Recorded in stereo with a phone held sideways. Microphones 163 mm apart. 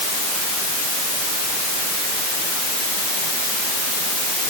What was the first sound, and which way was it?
Only background noise.